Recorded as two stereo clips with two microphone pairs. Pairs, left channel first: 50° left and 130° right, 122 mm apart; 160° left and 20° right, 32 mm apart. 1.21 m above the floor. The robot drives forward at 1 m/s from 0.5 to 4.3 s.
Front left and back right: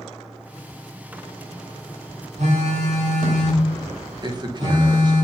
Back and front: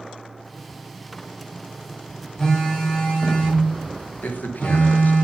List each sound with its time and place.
2.4 s a phone buzzing: 120° right, 2.5 m; by 5.2 s 145° right, 4 m
4.2 s a man speaking: 175° left, 1.0 m